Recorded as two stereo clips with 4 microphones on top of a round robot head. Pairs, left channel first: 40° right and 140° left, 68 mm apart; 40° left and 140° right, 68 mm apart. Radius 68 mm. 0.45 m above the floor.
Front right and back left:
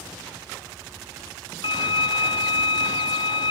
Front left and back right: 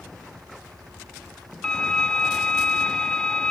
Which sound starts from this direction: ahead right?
A violin, at 1.6 s.